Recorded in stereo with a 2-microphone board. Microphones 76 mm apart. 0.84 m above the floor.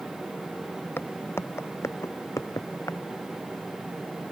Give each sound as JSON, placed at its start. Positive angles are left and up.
{"t": 1.0, "sound": "footsteps", "side_deg": 30}